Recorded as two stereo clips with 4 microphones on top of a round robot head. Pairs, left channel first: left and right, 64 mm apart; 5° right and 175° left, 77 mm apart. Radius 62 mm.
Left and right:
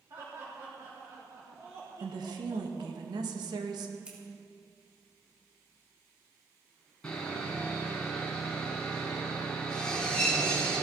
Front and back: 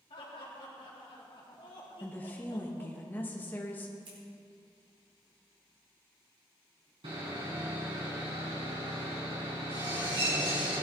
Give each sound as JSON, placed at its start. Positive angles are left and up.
{"t": 0.1, "sound": "laughter", "azimuth_deg": -30, "distance_m": 3.5}
{"t": 2.0, "sound": "a woman speaking", "azimuth_deg": -75, "distance_m": 1.6}
{"t": 4.0, "sound": "scissors", "azimuth_deg": -165, "distance_m": 4.5}
{"t": 7.0, "sound": "sawing", "azimuth_deg": 165, "distance_m": 5.5}